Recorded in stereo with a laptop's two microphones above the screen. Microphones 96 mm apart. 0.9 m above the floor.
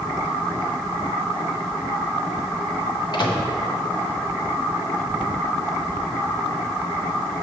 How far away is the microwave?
About 0.8 m.